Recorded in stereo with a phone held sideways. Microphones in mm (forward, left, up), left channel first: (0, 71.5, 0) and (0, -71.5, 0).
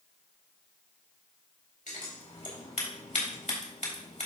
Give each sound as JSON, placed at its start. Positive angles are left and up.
{"t": 1.9, "sound": "scissors", "side_deg": 65, "distance_m": 3.0}